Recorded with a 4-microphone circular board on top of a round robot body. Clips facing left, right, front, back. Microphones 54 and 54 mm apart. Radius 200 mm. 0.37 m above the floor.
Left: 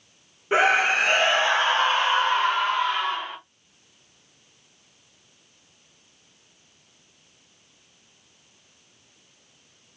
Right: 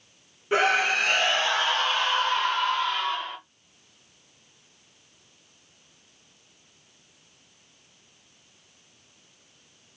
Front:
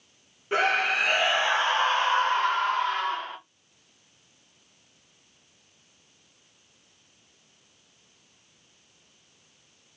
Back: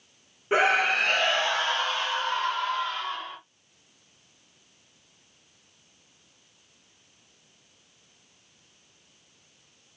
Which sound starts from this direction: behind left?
A scream, at 0.5 s.